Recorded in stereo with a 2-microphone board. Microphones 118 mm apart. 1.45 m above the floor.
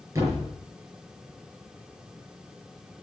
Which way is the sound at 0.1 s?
30° right (ahead or behind).